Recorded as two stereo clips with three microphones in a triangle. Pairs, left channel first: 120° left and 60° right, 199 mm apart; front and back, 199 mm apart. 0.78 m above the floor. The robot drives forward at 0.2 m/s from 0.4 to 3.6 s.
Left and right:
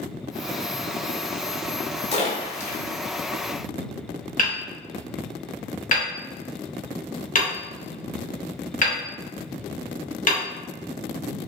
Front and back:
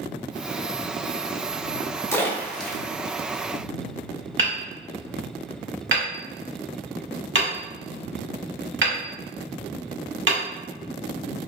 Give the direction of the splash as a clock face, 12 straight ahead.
10 o'clock.